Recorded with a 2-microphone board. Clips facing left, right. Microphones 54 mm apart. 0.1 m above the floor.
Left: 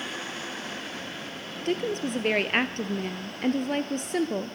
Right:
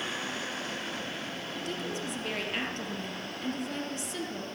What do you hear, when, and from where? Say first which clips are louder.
1.6 s a woman speaking: left 10 dB; 50° left (ahead or behind), 2 m